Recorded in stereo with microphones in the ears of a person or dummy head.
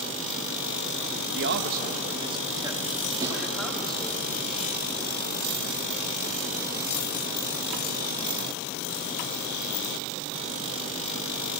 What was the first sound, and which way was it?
A man speaking, 65° right (ahead or behind).